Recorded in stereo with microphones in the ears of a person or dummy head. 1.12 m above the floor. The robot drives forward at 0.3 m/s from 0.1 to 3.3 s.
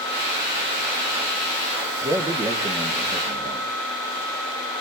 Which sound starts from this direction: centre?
A man speaking, at 2.0 s.